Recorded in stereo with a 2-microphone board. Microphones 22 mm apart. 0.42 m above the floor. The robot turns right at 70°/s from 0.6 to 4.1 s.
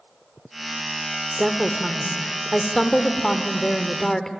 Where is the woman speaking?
25° right (ahead or behind), 1.4 m; by 4.3 s 20° left (ahead or behind), 1.4 m.